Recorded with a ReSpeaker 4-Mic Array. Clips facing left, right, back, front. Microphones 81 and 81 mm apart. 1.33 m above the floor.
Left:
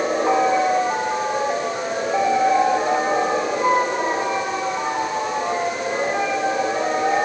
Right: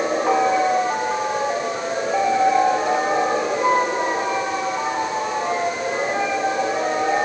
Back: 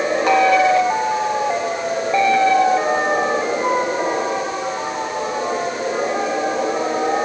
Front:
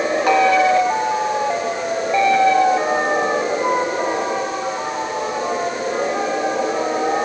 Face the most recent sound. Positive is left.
No sound to turn to.